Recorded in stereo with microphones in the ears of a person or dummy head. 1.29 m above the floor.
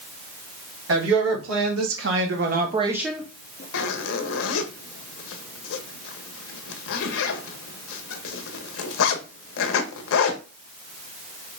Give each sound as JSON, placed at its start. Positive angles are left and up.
{"t": 0.9, "sound": "a woman speaking", "side_deg": -80, "distance_m": 3.0}
{"t": 3.7, "sound": "a zipper", "side_deg": 75, "distance_m": 0.9}